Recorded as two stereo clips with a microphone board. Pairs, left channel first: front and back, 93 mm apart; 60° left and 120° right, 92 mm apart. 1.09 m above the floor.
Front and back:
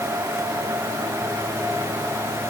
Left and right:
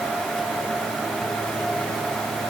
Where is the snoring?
No snoring in this recording.